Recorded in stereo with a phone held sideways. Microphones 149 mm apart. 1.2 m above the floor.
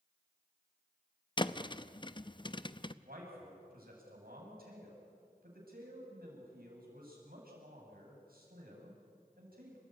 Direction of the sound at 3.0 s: 90° right.